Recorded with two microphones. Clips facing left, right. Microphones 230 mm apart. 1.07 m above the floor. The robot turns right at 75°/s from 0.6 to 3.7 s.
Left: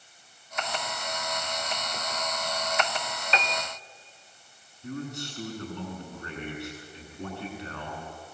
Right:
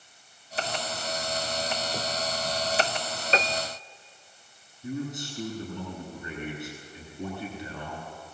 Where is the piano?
40° right (ahead or behind), 0.5 m; by 3.7 s 65° right (ahead or behind), 0.5 m.